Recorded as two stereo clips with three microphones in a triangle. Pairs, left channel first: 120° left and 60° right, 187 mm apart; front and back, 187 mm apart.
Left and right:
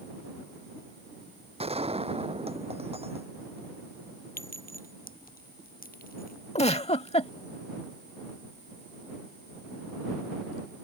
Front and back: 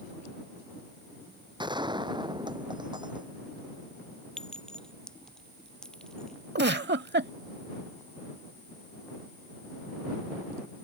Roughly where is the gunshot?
Behind right.